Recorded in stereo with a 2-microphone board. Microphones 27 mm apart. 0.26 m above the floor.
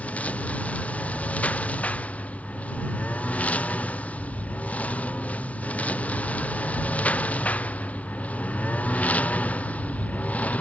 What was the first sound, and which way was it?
A lawn mower, 65° left (ahead or behind).